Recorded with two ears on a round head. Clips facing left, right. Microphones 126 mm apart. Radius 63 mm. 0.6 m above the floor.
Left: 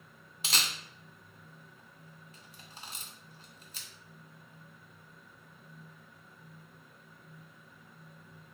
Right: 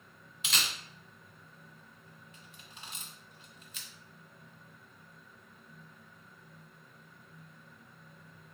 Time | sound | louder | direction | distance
0.4 | a camera shutter | left 1 dB | 30° left (ahead or behind) | 0.6 m